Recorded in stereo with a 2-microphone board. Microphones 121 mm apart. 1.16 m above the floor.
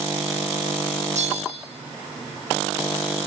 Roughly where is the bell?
Right.